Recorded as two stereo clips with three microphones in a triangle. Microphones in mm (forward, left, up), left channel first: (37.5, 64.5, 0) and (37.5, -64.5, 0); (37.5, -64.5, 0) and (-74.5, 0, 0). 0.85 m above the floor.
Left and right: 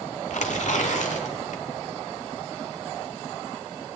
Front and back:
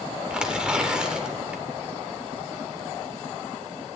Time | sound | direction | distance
0.3 | tearing paper | 65° left | 1.4 m